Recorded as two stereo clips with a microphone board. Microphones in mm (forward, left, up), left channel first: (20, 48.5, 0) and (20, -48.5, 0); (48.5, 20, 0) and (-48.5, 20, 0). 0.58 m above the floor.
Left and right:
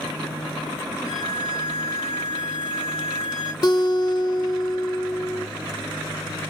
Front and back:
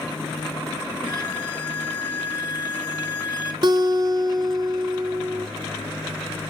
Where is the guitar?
135° left, 0.6 m.